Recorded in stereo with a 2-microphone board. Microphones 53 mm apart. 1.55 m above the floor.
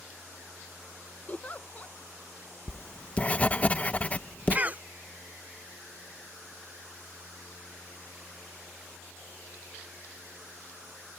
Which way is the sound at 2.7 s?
25° left (ahead or behind).